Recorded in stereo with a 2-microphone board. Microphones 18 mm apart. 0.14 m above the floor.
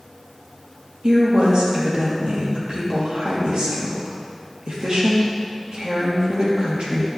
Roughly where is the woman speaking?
Right.